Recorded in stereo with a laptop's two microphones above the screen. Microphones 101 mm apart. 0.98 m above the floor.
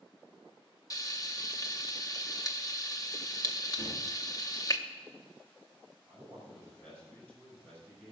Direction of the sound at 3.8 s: 5° right (ahead or behind).